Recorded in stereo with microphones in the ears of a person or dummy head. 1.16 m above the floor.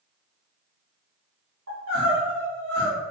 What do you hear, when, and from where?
1.7 s crying: 75° right (ahead or behind), 1.8 m